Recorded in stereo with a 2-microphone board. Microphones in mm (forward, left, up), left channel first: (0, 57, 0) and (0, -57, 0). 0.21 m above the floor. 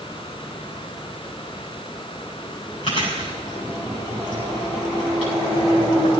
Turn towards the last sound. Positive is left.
turn(degrees=50)  # may be behind; listen again after turning